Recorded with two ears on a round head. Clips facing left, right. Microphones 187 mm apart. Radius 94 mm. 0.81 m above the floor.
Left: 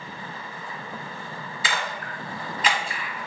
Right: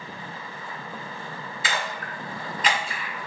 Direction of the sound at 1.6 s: 75° left (ahead or behind).